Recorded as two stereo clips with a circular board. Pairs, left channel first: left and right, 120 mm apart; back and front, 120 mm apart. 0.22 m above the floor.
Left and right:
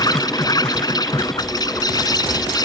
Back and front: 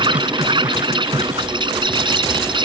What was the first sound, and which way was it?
An insect, 40° left.